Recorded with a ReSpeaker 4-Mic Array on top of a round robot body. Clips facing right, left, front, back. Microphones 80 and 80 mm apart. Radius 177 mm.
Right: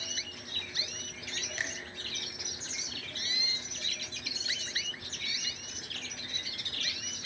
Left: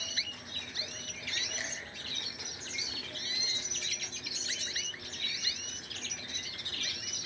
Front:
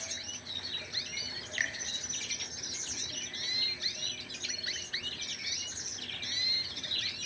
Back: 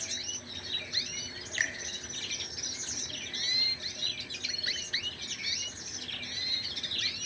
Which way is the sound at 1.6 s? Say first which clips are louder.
Right 7 dB, back 2 dB; 115° right.